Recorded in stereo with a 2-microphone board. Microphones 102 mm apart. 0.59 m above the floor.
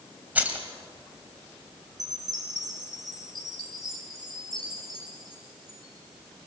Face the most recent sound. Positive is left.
turn(degrees=-35)  # may be behind; listen again after turning